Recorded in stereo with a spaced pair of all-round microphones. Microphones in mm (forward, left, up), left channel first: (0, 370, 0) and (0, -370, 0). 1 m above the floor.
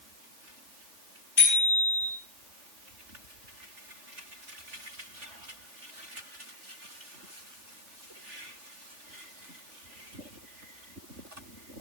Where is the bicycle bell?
90° left, 9 m.